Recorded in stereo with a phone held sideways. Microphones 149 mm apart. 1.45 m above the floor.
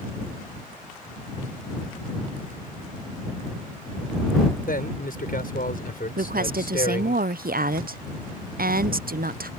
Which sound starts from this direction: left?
A man speaking, at 4.7 s.